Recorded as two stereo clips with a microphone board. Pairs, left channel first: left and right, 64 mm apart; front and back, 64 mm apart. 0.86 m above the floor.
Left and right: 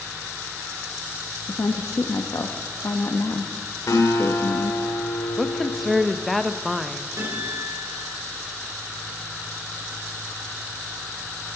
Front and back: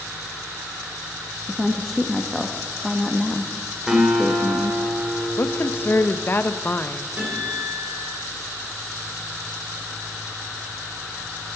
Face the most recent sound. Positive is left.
turn(degrees=-115)